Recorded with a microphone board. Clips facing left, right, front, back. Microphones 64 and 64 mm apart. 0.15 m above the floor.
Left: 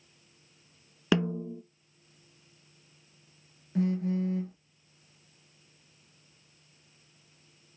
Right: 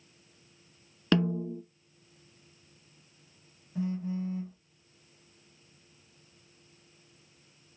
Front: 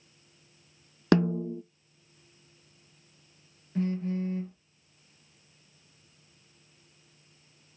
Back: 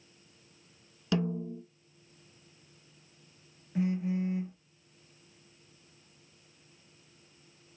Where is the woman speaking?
I don't hear a woman speaking.